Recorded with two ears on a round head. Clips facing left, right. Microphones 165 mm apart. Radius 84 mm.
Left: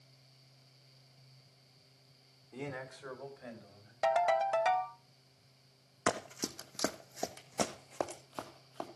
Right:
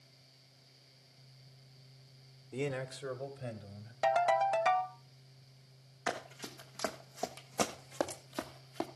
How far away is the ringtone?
About 1.7 m.